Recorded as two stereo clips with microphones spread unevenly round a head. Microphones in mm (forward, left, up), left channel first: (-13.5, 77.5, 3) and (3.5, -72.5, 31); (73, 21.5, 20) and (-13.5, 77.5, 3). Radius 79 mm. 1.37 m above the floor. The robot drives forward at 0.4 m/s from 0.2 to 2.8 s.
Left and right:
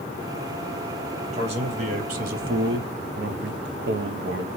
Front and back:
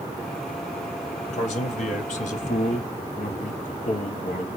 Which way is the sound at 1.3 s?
30° right.